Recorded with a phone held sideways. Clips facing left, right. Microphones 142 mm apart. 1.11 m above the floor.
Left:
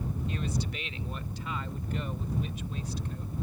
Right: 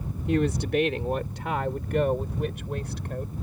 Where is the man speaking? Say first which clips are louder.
Right 15 dB; 65° right (ahead or behind); by 3.3 s 60° right (ahead or behind).